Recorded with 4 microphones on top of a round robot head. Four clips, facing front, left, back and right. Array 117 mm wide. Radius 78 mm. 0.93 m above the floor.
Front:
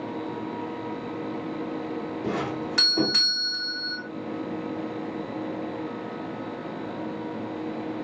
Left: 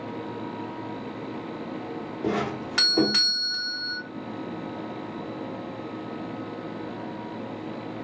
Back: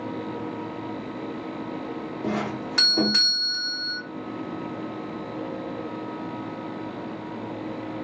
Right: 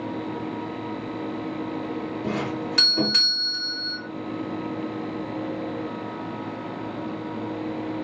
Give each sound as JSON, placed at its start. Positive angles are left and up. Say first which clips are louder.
{"t": 2.2, "sound": "a doorbell", "louder": "left 3 dB, back 2 dB", "azimuth_deg": 100, "distance_m": 1.6}